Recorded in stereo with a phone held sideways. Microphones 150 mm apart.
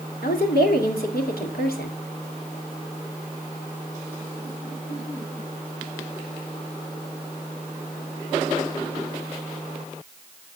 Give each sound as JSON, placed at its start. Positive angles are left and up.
{"t": 0.2, "sound": "a woman speaking", "side_deg": 80, "distance_m": 2.5}